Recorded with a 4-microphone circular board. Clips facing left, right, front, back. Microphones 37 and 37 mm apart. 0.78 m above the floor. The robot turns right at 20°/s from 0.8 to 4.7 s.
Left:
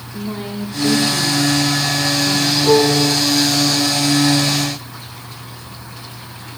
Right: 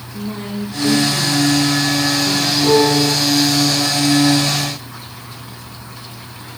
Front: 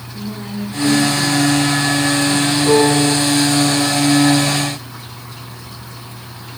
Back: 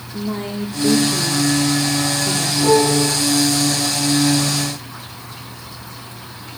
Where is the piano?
160° right, 8.5 m; by 3.1 s 150° right, 8.5 m.